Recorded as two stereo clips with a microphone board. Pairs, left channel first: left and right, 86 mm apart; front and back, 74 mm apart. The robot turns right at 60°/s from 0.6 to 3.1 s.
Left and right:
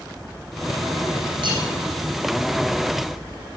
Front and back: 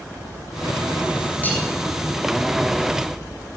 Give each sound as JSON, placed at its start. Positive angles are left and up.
{"t": 1.4, "sound": "cutlery clinking", "azimuth_deg": -65, "distance_m": 4.5}